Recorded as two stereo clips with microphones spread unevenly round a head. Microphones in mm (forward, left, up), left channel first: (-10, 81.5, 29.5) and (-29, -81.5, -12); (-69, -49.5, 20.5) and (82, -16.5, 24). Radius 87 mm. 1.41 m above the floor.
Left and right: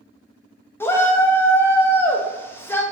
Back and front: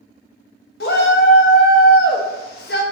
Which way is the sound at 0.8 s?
155° left.